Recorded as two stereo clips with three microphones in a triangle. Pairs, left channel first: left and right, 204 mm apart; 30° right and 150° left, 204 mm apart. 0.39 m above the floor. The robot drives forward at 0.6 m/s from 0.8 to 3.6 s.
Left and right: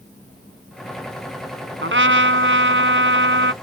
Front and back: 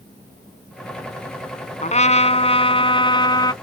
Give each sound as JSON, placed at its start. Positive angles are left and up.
{"t": 1.8, "sound": "a trumpet", "azimuth_deg": -85}